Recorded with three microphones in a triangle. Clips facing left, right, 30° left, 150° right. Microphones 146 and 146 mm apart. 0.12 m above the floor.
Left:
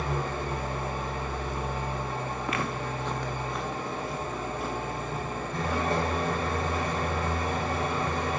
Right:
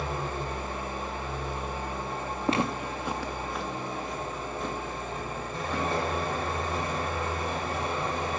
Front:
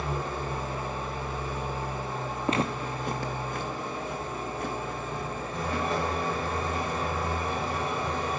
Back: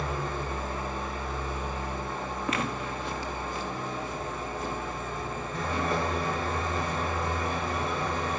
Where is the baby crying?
No baby crying in this recording.